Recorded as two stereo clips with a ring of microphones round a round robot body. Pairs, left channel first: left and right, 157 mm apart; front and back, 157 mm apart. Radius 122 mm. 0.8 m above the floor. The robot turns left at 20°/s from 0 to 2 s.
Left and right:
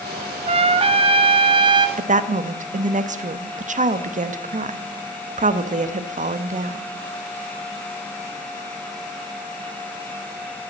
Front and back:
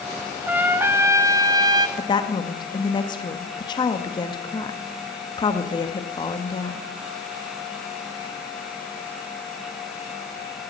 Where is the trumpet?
105° right, 0.8 m; by 1.9 s 135° right, 0.8 m.